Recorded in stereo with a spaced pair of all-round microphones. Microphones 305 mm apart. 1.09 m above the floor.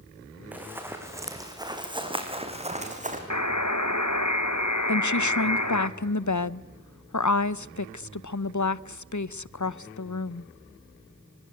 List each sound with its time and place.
0.5 s running footsteps: 5° right (ahead or behind), 4 m; by 3.2 s 25° right (ahead or behind), 3.5 m
3.3 s a buzzer: 65° left (ahead or behind), 1.4 m
4.9 s a woman speaking: 70° left (ahead or behind), 0.7 m